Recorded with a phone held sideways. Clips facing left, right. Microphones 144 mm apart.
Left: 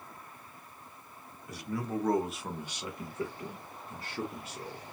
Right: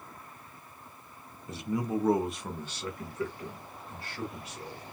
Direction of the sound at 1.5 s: 25° right (ahead or behind).